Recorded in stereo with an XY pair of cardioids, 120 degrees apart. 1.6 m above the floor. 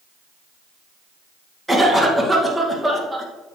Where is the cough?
10° right, 2 m.